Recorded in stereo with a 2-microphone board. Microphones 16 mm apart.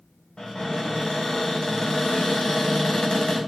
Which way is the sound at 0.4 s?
70° left (ahead or behind).